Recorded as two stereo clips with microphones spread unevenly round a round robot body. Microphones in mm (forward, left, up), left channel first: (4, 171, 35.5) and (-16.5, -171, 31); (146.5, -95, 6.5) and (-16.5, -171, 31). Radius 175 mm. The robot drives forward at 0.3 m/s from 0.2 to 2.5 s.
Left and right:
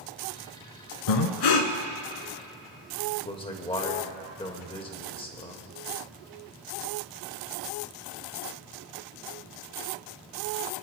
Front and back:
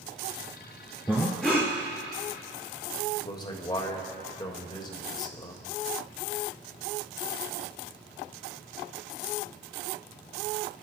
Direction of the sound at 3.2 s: 25° left.